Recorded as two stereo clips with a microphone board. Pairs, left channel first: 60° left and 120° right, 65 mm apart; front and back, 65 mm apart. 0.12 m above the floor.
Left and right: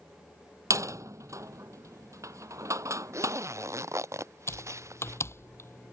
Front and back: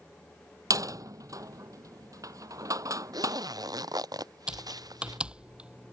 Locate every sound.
0.7 s a door slam: 155° right
3.1 s a zipper: 160° right
4.5 s typing on a keyboard: 105° left